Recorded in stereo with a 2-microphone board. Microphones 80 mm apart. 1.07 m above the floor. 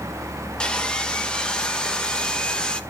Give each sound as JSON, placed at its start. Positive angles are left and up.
{"t": 0.6, "sound": "sawing", "side_deg": 10, "distance_m": 1.4}